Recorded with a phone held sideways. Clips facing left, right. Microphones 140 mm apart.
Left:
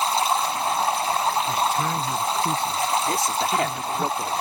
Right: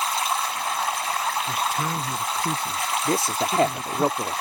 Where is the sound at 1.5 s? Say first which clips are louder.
Left 3 dB; 5° right (ahead or behind).